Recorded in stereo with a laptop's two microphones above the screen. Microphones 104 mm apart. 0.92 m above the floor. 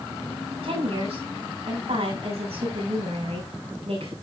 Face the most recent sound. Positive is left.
turn(degrees=-75)  # may be behind; listen again after turning